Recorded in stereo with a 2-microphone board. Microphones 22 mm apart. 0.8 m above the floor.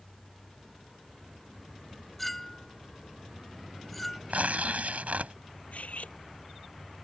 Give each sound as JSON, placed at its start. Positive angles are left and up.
{"t": 2.2, "sound": "a clink", "side_deg": 5}
{"t": 4.3, "sound": "tearing paper", "side_deg": -80}
{"t": 5.7, "sound": "cutlery clinking", "side_deg": 70}